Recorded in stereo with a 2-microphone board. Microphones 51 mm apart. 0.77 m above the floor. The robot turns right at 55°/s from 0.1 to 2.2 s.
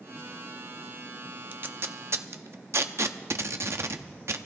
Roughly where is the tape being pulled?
Right.